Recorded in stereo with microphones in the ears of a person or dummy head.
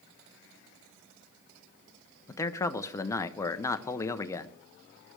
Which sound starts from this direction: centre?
A man speaking, at 2.3 s.